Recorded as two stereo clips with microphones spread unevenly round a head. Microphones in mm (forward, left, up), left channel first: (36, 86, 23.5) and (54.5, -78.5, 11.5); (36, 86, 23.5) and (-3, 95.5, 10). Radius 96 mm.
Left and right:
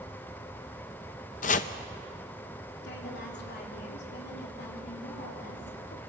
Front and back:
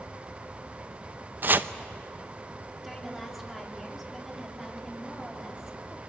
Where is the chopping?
125° left, 0.7 m.